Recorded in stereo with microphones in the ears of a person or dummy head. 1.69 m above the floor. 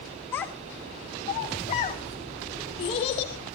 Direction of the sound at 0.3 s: 20° left (ahead or behind).